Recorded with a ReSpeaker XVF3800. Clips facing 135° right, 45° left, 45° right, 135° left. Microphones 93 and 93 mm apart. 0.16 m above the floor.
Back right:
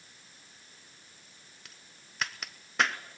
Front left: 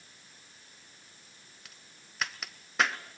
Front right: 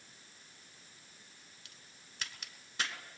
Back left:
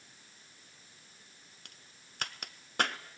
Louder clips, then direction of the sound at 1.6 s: Even, back left 1 dB; 135° left.